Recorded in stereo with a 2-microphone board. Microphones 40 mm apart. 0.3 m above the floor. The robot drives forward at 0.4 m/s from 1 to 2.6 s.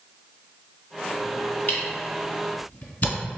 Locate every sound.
1.7 s a camera shutter: 40° left (ahead or behind), 1.3 m; by 3.1 s 35° left (ahead or behind), 1.6 m